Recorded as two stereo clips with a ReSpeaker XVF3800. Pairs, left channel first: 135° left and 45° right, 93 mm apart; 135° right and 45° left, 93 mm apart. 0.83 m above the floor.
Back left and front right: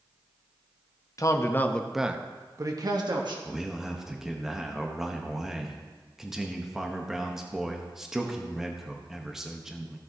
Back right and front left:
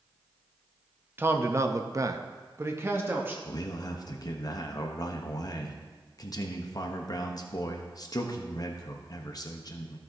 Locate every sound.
1.2 s a man speaking: 105° left, 0.7 m; by 3.4 s 20° right, 1.1 m
3.5 s a man speaking: 130° right, 0.8 m